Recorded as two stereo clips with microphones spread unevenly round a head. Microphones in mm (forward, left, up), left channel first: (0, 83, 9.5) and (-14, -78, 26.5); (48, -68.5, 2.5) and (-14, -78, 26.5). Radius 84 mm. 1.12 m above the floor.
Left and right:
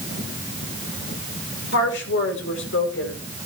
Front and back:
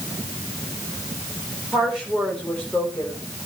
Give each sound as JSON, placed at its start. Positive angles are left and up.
{"t": 1.7, "sound": "a woman speaking", "azimuth_deg": 100, "distance_m": 4.0}